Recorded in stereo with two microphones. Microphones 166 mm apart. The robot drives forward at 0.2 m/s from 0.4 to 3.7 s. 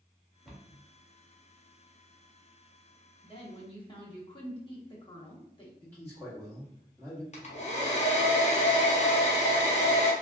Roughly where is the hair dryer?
Left.